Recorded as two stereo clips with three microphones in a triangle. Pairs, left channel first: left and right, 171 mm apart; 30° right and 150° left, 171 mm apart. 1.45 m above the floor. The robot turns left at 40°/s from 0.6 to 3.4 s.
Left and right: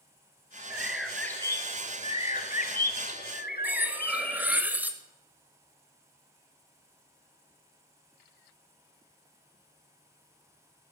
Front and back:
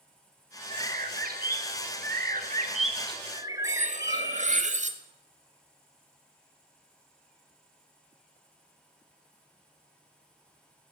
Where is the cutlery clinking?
170° right, 1.1 m.